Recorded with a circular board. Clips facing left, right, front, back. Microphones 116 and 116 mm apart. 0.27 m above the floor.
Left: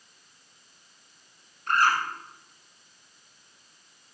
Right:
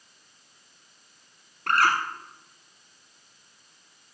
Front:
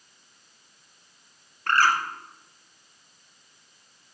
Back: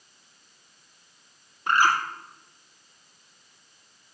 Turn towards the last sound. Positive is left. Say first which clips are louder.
# right 1 dB, even
turn(degrees=-105)